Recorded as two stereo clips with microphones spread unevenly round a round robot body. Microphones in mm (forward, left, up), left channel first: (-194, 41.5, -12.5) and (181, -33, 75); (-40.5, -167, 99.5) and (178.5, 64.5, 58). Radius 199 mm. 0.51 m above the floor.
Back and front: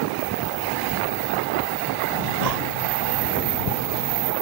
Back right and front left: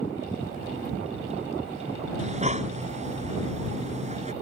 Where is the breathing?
20° right.